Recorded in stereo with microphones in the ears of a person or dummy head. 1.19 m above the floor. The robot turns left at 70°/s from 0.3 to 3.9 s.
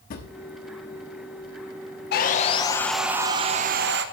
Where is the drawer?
45° left (ahead or behind), 1.3 m.